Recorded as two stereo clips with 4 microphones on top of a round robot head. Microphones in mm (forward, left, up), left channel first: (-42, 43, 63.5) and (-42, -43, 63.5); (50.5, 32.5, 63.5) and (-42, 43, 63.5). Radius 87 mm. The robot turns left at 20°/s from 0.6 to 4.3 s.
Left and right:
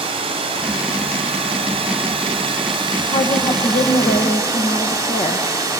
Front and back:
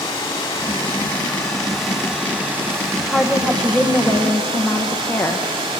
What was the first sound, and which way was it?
Running water, 70° right.